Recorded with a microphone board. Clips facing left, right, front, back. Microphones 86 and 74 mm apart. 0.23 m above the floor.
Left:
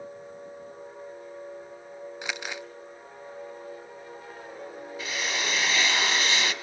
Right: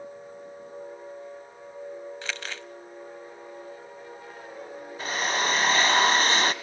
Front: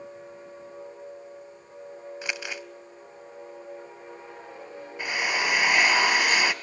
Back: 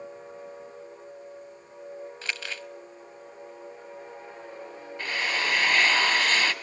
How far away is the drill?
About 1.2 m.